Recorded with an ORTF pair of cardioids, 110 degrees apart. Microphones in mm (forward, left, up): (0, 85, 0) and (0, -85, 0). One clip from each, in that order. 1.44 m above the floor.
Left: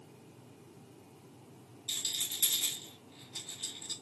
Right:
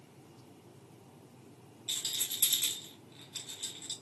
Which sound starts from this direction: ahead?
A rattle, at 1.9 s.